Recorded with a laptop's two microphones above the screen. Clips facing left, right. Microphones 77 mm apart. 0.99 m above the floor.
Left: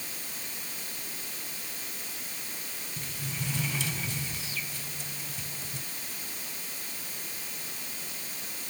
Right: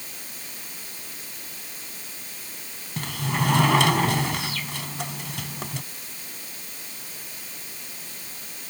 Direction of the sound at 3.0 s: 80° right.